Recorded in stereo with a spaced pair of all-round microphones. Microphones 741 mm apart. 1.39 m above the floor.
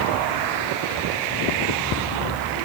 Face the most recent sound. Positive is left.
No sound to turn to.